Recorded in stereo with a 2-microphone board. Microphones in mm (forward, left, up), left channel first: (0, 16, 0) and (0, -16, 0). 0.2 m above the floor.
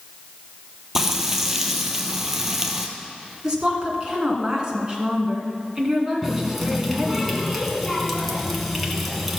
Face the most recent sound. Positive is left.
turn(degrees=-5)  # may be behind; listen again after turning